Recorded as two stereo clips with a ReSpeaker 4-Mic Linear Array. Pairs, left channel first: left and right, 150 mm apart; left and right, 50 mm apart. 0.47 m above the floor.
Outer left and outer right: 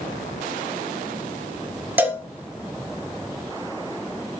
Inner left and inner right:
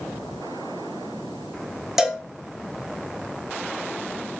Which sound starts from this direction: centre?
A cowbell, at 2.0 s.